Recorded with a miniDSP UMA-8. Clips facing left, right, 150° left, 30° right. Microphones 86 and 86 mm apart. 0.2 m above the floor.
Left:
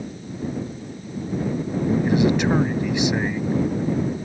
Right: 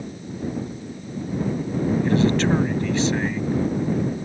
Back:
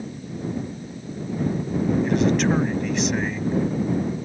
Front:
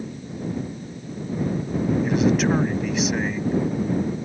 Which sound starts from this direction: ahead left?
A man speaking, at 2.0 s.